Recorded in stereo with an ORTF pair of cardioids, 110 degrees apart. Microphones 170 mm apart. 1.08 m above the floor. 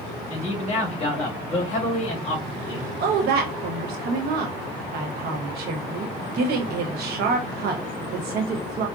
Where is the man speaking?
40° left, 2 m.